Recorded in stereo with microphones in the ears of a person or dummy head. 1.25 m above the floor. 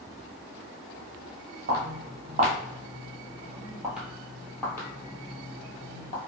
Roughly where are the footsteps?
Right.